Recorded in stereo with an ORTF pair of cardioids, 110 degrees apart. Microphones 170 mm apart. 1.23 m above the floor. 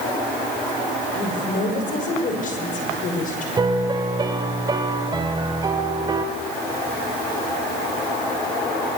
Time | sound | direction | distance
1.1 | a woman speaking | 50° left | 6 m
3.6 | a piano | 25° right | 3 m